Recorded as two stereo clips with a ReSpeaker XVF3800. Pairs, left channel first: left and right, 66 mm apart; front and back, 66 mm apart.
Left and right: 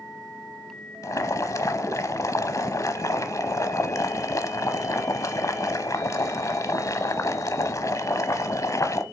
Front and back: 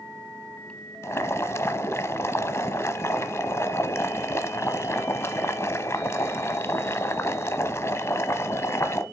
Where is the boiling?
45° left, 0.9 m.